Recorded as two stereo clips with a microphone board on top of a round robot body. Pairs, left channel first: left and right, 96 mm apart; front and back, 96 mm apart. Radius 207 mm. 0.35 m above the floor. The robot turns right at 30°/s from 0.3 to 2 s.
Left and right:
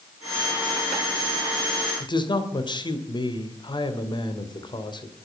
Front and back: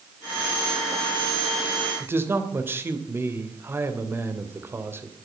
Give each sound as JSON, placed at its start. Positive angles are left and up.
{"t": 2.0, "sound": "a man speaking", "azimuth_deg": 115, "distance_m": 2.5}